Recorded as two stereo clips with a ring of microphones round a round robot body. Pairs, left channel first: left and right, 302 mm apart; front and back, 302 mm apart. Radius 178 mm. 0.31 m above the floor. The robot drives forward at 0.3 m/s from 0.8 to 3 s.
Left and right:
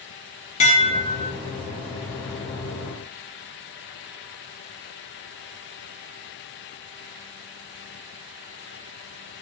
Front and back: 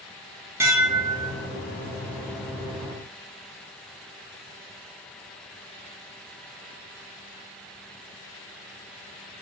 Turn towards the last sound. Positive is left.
turn(degrees=165)